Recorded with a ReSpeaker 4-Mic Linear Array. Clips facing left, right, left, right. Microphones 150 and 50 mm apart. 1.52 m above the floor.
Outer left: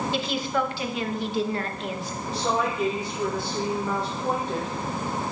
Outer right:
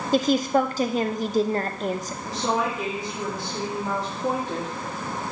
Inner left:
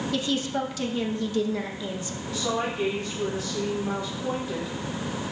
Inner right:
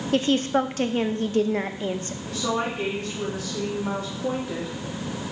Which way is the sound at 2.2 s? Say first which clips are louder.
Even, inner right 1 dB; 80° right.